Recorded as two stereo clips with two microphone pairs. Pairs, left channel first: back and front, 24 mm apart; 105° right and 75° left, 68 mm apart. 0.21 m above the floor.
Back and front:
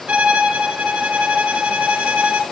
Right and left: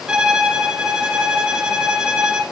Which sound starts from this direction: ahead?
A violin, at 0.1 s.